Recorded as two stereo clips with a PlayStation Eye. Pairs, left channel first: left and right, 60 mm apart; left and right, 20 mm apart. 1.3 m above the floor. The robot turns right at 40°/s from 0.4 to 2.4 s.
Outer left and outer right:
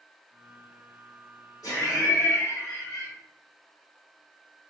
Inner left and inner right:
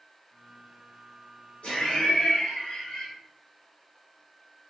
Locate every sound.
1.6 s laughter: 80° left, 1.5 m; by 3.1 s 110° left, 1.5 m